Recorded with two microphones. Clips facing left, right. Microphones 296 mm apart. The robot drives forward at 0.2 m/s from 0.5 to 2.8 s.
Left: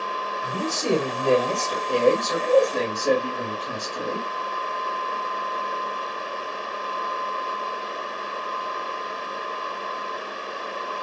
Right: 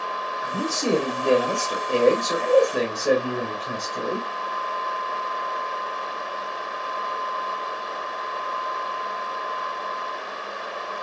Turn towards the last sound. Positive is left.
turn(degrees=-5)  # may be behind; listen again after turning